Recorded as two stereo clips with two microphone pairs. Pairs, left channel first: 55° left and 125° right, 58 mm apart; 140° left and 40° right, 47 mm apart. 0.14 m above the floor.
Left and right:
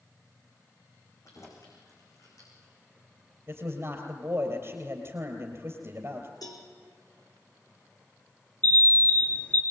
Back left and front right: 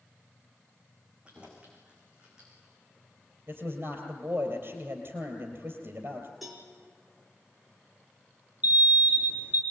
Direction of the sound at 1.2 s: 25° left.